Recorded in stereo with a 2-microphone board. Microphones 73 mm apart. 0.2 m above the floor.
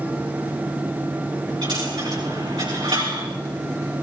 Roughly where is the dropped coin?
Right.